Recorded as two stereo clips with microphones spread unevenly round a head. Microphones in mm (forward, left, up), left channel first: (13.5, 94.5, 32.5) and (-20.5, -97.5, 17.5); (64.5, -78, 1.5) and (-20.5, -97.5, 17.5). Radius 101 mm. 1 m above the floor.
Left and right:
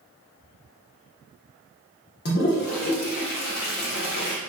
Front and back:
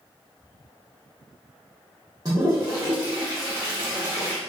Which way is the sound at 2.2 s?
120° left.